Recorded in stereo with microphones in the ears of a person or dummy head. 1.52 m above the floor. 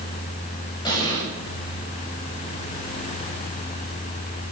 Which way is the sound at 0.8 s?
20° left (ahead or behind).